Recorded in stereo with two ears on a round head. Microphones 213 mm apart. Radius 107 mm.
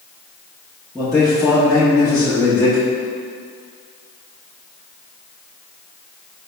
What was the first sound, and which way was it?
A man speaking, 5° left (ahead or behind).